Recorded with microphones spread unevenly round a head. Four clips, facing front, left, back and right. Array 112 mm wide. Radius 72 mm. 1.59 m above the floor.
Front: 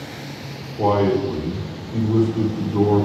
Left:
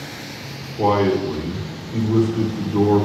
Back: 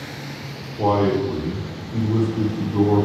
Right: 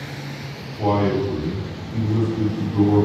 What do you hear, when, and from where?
0.8 s a man speaking: 130° left, 1.9 m